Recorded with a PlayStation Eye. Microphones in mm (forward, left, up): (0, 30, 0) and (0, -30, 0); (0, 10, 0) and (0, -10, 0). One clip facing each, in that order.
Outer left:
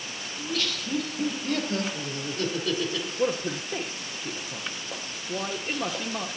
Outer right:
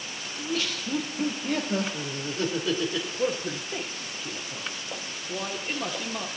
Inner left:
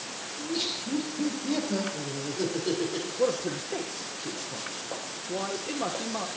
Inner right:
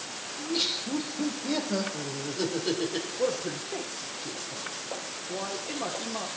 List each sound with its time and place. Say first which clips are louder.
0.4 s laughter: outer right 1 dB, inner right 2 dB; 20° right (ahead or behind), 2 m
3.2 s a man speaking: outer left 2 dB, inner left 3 dB; 15° left (ahead or behind), 1.0 m